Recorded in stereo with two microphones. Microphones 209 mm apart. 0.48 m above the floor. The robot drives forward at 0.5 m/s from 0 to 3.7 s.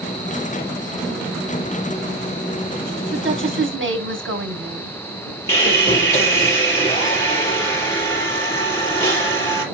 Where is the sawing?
15° left (ahead or behind), 4.5 m.